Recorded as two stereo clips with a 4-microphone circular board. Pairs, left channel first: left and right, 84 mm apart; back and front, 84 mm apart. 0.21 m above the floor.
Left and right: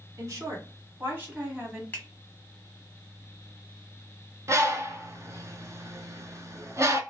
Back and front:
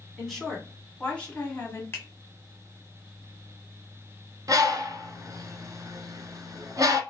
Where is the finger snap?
145° left, 1.3 m.